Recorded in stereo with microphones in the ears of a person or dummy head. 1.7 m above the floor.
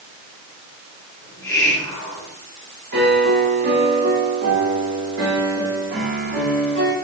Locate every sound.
1.2 s a hiss: 20° left (ahead or behind), 3 m
2.9 s a piano: 60° right (ahead or behind), 3.5 m